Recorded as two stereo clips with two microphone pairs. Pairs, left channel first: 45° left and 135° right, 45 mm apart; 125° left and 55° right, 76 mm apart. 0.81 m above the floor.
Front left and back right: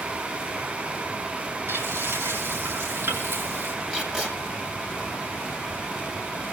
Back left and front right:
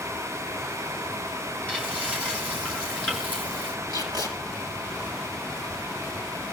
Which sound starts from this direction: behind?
Frying, at 1.7 s.